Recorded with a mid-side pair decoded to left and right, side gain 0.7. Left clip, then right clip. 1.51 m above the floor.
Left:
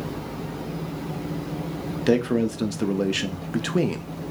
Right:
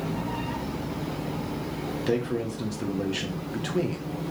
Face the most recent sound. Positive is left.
turn(degrees=35)